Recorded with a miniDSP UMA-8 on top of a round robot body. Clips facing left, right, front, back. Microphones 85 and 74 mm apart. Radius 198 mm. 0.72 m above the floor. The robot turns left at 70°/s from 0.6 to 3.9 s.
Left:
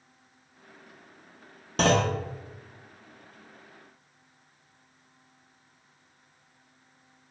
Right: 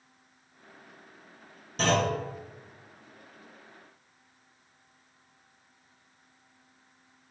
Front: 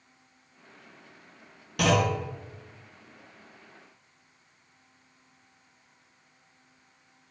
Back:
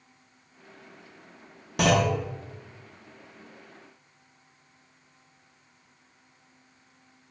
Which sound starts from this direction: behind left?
A clunk, at 1.8 s.